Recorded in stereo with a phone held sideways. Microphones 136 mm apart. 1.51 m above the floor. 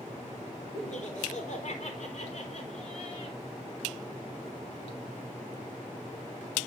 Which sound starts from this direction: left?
Laughter, at 0.7 s.